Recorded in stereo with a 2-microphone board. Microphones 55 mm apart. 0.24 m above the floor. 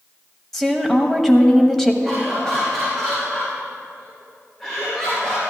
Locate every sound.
0.5 s a woman speaking: 5° left (ahead or behind), 0.9 m
2.0 s laughter: 10° left (ahead or behind), 3.5 m